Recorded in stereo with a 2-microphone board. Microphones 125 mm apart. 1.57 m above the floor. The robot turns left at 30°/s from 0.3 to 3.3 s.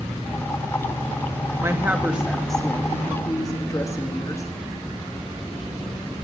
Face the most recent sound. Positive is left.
turn(degrees=155)